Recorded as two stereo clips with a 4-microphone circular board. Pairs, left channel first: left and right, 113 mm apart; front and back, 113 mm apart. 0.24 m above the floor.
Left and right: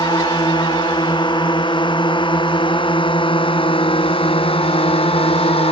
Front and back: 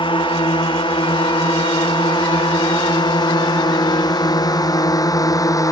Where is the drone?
40° left; by 5.7 s 60° left.